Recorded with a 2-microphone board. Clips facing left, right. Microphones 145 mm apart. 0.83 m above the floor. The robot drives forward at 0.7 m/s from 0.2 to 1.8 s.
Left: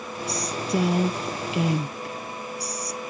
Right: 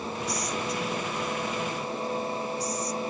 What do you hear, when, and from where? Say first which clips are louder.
0.3 s a woman speaking: left 6 dB; 70° left (ahead or behind); by 3.0 s 75° left (ahead or behind)